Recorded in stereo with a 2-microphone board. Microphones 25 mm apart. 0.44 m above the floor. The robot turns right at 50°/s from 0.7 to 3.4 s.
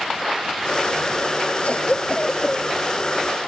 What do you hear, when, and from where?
1.6 s a cough: 110° left; by 2.7 s 160° left